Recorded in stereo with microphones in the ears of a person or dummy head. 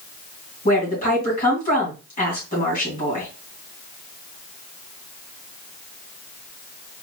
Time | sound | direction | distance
0.7 | a woman speaking | 40° left (ahead or behind) | 3 m